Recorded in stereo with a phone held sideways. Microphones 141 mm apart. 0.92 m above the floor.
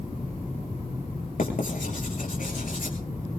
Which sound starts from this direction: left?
Writing, at 1.4 s.